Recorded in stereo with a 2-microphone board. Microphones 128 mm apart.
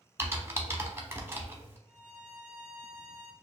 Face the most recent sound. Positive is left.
turn(degrees=-10)  # may be behind; listen again after turning